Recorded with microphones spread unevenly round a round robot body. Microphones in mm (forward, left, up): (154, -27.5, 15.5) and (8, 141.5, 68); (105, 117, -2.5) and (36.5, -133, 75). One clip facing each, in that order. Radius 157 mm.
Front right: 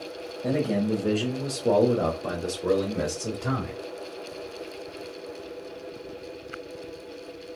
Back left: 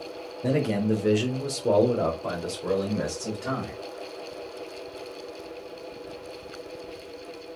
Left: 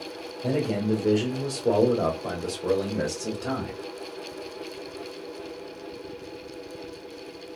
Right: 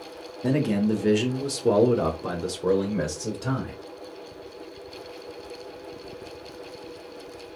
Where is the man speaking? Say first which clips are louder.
Back left 1 dB, right 3 dB; 175° right, 1.1 m; by 3.8 s 20° right, 1.6 m.